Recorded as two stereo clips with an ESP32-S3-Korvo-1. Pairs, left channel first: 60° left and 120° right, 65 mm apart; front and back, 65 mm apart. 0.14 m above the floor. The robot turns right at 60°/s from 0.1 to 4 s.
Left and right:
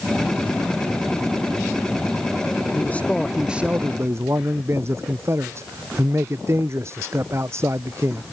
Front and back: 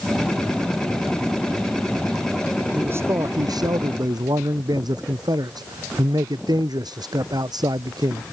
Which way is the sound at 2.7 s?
115° left.